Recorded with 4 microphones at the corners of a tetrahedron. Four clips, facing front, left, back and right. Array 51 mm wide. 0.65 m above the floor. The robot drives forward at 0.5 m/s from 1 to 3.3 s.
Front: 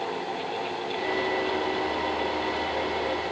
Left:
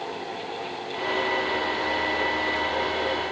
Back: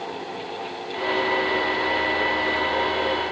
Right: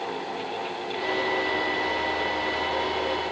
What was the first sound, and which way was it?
Only background noise.